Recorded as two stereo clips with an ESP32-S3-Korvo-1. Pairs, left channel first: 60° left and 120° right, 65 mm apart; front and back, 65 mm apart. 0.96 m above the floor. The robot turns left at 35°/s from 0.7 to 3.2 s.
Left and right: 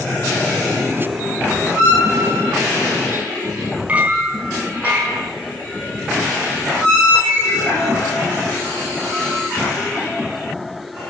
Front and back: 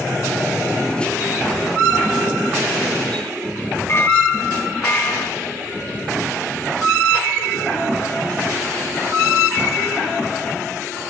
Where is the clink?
50° right, 4.5 m.